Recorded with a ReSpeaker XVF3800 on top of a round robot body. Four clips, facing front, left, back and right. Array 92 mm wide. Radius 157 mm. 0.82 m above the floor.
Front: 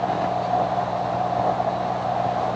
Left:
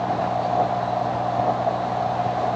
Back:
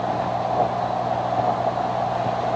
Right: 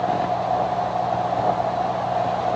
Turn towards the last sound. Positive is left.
No sound to turn to.